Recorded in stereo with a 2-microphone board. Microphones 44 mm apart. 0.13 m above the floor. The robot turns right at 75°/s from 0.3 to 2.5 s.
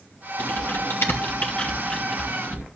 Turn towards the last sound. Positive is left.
turn(degrees=-30)  # may be behind; listen again after turning